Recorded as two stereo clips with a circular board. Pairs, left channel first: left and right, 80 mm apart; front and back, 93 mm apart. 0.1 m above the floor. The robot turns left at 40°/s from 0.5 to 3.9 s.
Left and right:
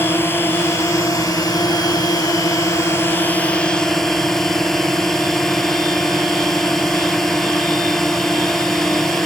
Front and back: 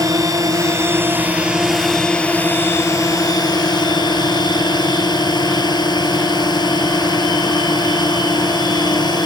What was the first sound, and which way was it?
A drone, 145° left.